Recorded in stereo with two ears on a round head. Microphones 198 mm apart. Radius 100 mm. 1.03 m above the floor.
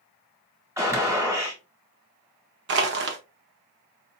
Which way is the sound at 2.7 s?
55° right (ahead or behind).